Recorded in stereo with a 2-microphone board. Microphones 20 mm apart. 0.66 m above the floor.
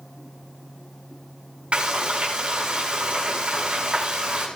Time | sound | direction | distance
1.7 | frying | 80° right | 6.5 m